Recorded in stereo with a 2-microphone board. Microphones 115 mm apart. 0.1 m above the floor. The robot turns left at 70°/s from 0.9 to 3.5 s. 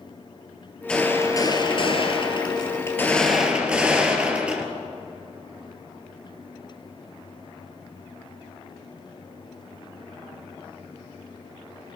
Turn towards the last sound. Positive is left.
turn(degrees=-15)